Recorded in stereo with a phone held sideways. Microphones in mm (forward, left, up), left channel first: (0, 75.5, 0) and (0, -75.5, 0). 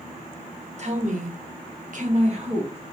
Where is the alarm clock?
No alarm clock in this recording.